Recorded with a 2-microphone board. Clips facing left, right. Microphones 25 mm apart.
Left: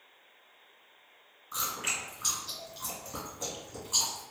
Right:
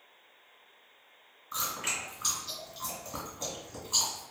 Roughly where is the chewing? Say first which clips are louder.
Even; centre.